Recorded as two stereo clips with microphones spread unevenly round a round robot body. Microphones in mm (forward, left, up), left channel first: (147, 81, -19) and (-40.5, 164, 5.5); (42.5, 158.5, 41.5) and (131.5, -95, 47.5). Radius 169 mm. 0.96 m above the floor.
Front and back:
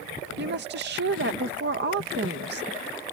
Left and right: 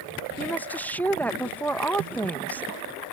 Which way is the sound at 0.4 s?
170° right.